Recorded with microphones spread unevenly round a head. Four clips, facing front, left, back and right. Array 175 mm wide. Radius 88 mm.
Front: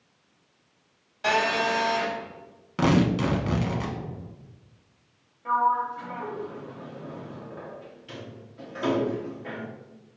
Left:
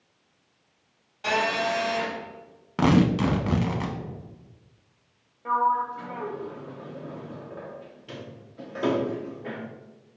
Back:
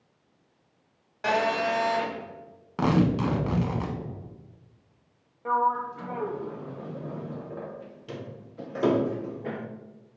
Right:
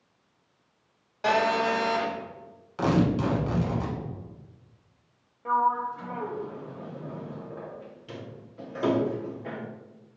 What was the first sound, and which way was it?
A phone buzzing, 100° right.